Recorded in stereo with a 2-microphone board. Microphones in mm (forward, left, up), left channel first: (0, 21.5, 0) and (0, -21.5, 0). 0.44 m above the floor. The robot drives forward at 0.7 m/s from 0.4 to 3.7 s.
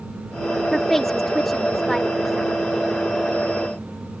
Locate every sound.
0.7 s a woman speaking: 5° left (ahead or behind)